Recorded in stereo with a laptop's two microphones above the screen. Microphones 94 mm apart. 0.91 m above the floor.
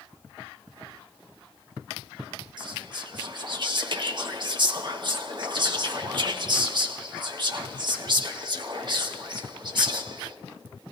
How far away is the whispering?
About 1.1 m.